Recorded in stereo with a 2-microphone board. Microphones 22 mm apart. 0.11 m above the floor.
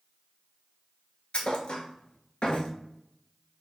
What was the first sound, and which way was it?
A thud, 50° left (ahead or behind).